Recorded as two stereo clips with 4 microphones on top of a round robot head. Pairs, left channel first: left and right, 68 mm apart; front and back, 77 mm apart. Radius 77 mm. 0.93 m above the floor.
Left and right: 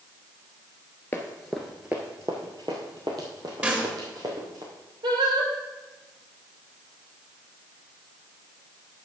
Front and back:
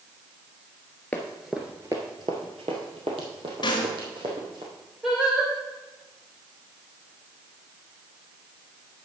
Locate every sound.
1.1 s running footsteps: 55° left, 0.9 m; by 4.6 s 140° right, 3 m
3.6 s a snare drum: 20° right, 2 m
5.0 s singing: 95° right, 2.5 m